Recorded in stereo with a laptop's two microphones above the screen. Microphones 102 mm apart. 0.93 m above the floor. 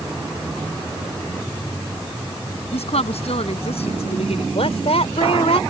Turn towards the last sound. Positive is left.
turn(degrees=80)